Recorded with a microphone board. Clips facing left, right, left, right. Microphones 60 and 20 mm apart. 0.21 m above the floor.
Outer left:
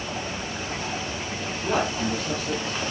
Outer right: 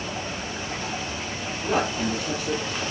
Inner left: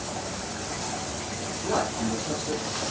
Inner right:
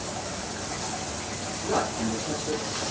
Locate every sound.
1.6 s a man speaking: 5° right (ahead or behind), 4 m; by 2.8 s 15° right (ahead or behind), 5 m